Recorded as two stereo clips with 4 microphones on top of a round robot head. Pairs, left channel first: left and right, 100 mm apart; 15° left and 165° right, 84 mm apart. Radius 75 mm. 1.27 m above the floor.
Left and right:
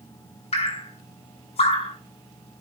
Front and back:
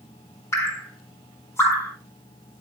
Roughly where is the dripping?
Left.